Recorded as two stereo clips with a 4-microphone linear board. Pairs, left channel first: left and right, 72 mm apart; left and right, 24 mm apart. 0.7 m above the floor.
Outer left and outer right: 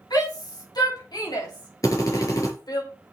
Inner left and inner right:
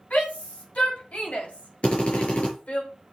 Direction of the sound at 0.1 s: 70° left (ahead or behind).